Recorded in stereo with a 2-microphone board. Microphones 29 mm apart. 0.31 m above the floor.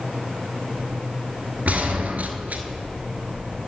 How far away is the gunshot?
About 0.9 m.